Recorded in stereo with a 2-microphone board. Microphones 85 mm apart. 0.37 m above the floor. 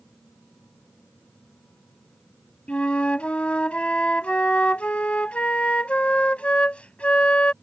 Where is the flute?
15° left (ahead or behind).